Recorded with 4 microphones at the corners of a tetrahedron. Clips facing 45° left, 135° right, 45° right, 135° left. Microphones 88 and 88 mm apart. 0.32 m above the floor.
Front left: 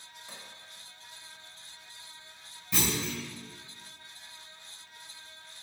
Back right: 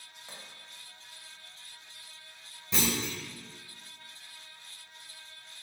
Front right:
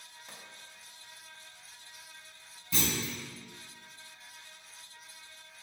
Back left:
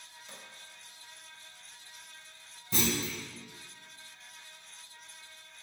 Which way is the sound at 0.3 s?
75° right.